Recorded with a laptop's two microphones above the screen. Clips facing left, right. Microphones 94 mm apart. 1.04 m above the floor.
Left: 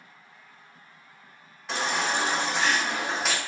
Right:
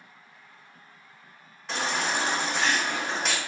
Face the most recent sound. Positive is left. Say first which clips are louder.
# left 1 dB
turn(degrees=0)  # may be behind; listen again after turning